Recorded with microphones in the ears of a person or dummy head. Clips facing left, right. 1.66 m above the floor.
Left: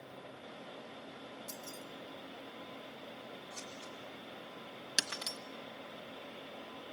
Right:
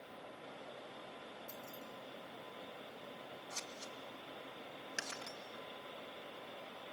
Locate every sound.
1.5 s keys jangling: 40° left (ahead or behind), 2 m
3.5 s scissors: 80° right, 2.5 m
5.0 s breaking glass: 55° left (ahead or behind), 1.4 m